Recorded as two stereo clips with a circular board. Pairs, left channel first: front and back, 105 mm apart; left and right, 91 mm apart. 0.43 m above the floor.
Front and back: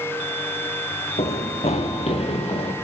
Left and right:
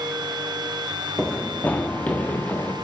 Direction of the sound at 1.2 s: 10° left.